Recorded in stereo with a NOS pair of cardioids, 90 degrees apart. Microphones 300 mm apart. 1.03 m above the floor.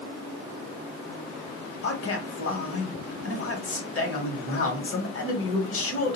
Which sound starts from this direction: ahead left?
A man speaking, at 1.8 s.